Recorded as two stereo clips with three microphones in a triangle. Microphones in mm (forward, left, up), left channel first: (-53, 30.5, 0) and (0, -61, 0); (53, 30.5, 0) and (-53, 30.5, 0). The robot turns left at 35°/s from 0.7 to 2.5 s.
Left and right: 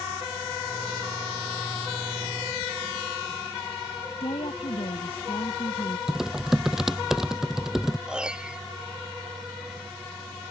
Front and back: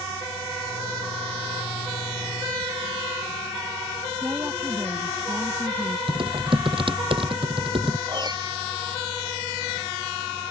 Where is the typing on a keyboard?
145° right.